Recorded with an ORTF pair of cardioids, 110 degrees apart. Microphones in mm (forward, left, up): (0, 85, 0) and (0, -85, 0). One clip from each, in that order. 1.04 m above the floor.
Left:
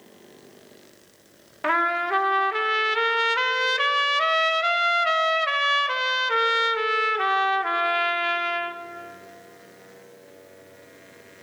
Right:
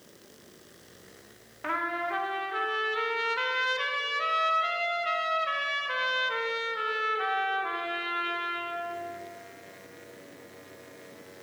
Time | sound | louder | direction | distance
1.6 | a trumpet | left 8 dB | 45° left | 0.9 m